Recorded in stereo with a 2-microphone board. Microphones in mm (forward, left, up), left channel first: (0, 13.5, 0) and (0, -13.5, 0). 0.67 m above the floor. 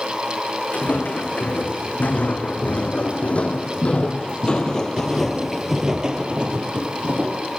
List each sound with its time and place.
0.7 s footsteps: 70° left (ahead or behind), 2.5 m; by 7.4 s 60° right (ahead or behind), 1.2 m